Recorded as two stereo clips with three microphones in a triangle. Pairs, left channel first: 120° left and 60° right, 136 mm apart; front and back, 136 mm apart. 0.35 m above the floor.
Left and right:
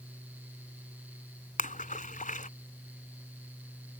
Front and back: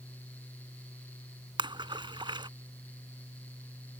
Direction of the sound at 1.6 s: 125° left.